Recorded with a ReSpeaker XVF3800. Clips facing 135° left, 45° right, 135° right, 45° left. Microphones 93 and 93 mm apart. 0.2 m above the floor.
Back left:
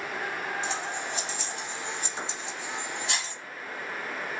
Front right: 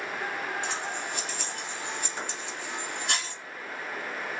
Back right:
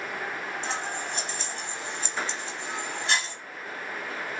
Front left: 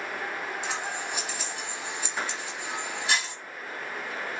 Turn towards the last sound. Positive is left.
turn(degrees=-35)